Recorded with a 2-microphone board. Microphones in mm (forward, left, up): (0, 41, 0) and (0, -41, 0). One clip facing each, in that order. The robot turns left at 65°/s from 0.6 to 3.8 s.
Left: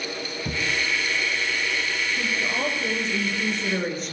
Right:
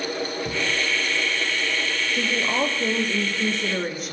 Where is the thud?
45° left (ahead or behind), 5.5 m; by 0.7 s 40° left (ahead or behind), 5.5 m.